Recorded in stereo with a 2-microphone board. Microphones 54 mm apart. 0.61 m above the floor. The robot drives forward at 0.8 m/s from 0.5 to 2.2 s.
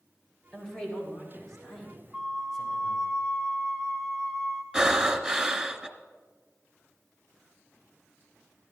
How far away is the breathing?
About 0.9 m.